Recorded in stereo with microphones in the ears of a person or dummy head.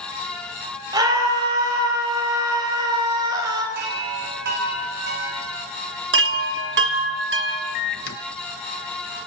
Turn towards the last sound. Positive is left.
turn(degrees=50)  # may be behind; listen again after turning